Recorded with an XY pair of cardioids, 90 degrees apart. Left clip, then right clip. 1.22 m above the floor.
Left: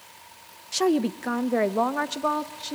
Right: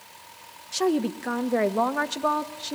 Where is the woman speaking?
15° left, 1.1 m; by 2.8 s 10° right, 2 m.